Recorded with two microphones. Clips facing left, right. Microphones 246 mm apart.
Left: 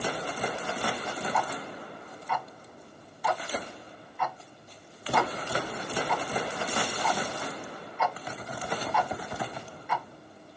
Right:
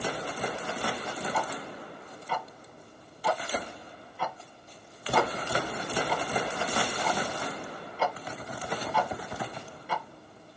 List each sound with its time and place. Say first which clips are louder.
1.3 s ticking: left 1 dB; 35° right (ahead or behind), 0.6 m